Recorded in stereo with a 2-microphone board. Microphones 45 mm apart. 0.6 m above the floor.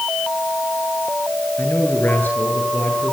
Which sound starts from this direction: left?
A man speaking, at 1.6 s.